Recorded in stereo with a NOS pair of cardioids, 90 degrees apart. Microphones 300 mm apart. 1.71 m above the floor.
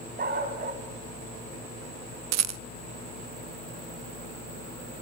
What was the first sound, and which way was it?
A dog barking, 30° right.